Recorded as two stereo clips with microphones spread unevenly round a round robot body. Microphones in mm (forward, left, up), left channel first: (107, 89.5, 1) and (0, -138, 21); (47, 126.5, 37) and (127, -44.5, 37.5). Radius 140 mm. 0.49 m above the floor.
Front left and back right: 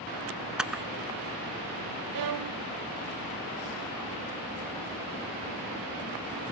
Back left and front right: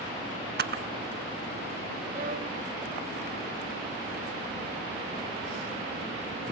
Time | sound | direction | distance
0.6 | a camera shutter | 30° right | 1.2 m
2.1 | a violin | 125° right | 0.7 m